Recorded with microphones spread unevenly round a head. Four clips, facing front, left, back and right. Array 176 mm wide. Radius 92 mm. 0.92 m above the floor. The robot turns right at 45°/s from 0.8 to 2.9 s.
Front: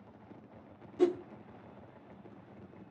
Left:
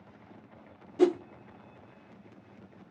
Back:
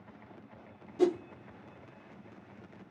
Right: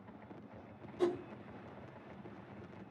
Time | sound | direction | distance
1.0 | a whoosh | 95° left | 0.6 m